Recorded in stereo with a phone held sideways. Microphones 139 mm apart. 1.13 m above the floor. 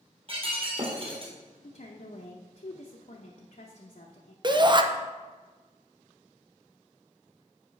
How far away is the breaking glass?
About 2 m.